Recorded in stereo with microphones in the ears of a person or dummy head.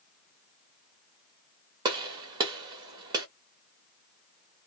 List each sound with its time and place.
1.9 s a gunshot: 25° right (ahead or behind), 1.1 m